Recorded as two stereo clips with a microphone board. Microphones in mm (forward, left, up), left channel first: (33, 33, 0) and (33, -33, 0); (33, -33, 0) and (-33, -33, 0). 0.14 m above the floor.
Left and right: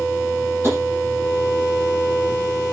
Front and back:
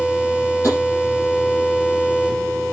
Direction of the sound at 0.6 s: 35° right.